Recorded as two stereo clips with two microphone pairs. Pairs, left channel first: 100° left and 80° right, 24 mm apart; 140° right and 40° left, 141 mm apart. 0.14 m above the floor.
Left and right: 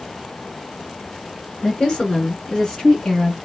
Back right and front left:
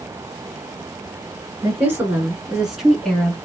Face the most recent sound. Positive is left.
turn(degrees=150)